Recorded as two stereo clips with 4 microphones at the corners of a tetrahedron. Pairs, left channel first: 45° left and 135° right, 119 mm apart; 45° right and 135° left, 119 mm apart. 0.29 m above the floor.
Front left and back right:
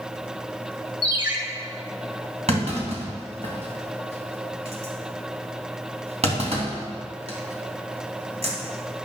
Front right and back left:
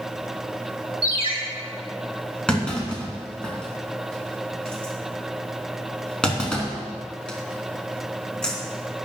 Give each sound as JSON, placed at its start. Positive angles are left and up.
{"t": 1.0, "sound": "a ringtone", "azimuth_deg": 180, "distance_m": 3.0}
{"t": 2.5, "sound": "a clunk", "azimuth_deg": -125, "distance_m": 3.0}